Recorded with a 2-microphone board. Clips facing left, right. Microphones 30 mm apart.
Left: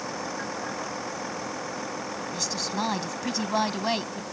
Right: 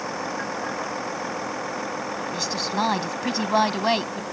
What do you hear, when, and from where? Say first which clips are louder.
0.0 s a vehicle: right 4 dB; 15° right (ahead or behind); by 4.3 s 20° right (ahead or behind)
2.3 s a woman speaking: right 4 dB; 25° right (ahead or behind)